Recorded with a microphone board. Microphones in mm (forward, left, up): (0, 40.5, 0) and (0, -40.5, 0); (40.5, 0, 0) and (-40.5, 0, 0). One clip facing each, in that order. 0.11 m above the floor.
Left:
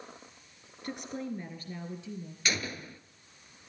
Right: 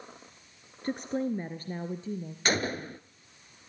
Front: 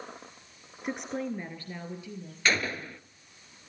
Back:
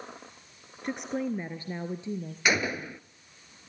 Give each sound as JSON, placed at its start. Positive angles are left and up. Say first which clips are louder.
{"t": 0.8, "sound": "a woman speaking", "louder": "right 7 dB, back 2 dB", "azimuth_deg": -85, "distance_m": 1.3}
{"t": 2.5, "sound": "a gunshot", "louder": "right 6 dB, back 1 dB", "azimuth_deg": -110, "distance_m": 0.7}